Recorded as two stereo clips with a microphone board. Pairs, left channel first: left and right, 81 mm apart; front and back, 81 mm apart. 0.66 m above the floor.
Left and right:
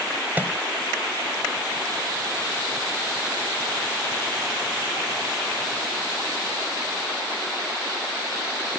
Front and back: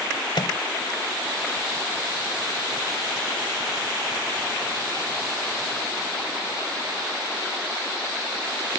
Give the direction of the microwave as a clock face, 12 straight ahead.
1 o'clock.